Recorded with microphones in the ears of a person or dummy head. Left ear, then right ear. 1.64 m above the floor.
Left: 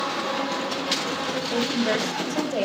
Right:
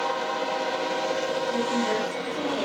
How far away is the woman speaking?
About 3.5 m.